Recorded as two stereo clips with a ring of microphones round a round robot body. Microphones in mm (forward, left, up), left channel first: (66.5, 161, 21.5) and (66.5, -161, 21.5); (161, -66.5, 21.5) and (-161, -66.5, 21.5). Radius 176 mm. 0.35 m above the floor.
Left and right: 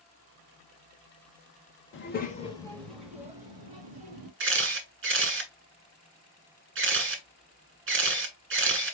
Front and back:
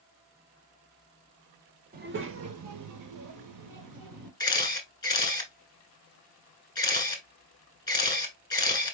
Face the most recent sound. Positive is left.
turn(degrees=-70)